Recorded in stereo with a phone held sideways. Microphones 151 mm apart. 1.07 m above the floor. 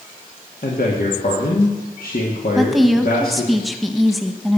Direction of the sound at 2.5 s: Centre (ahead or behind).